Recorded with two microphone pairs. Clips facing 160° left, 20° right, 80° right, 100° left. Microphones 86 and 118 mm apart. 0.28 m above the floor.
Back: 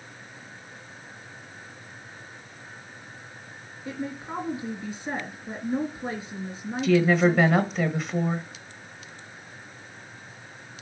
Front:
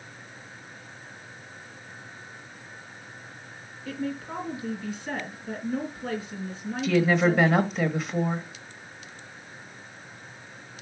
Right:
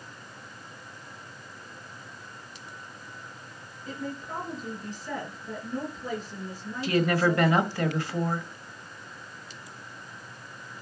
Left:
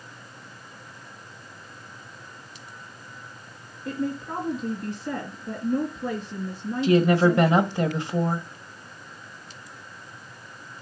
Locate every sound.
3.9 s a woman speaking: 90° left, 3 m
6.8 s a woman speaking: 60° left, 1.0 m